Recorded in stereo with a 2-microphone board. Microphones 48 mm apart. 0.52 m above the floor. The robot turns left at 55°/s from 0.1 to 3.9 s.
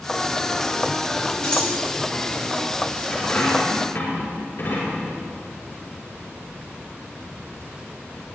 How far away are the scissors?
About 5.5 m.